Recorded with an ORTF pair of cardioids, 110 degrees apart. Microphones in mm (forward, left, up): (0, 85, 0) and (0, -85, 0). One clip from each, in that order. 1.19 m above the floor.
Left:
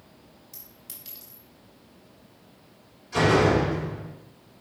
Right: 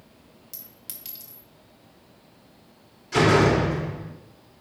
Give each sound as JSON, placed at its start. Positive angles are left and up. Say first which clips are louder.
{"t": 0.5, "sound": "a clink", "louder": "right 4 dB", "azimuth_deg": -70, "distance_m": 2.5}
{"t": 3.1, "sound": "a door slam", "louder": "right 2 dB", "azimuth_deg": -65, "distance_m": 2.5}